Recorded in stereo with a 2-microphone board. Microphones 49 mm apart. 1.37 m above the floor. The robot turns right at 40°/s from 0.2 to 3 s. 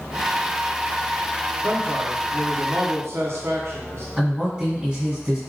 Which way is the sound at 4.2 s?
15° right (ahead or behind).